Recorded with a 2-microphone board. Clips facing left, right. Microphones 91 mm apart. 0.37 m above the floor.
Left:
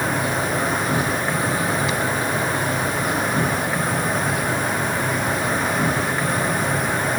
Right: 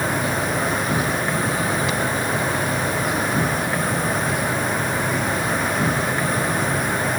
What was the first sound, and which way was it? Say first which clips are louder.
An insect: even; centre (ahead or behind).